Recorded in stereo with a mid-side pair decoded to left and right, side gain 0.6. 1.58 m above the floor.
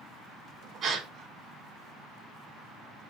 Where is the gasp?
45° right, 1.0 m.